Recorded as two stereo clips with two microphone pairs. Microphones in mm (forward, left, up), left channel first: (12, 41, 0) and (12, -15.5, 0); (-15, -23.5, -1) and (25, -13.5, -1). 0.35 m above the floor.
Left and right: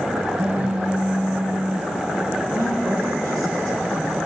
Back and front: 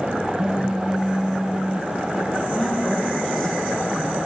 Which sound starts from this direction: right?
A woman speaking, at 2.5 s.